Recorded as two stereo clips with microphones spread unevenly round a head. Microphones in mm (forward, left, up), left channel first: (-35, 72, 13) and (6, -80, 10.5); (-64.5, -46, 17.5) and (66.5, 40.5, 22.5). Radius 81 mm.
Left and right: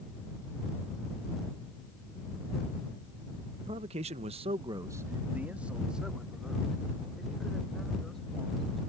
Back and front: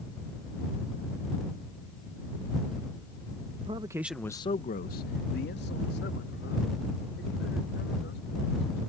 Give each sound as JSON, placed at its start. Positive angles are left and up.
{"t": 3.6, "sound": "a man speaking", "azimuth_deg": -20}